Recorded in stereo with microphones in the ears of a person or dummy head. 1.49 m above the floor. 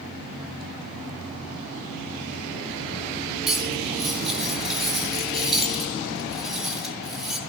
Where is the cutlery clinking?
Centre (ahead or behind), 2.5 m.